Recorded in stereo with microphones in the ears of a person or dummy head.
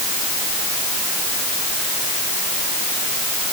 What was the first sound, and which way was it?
Only background noise.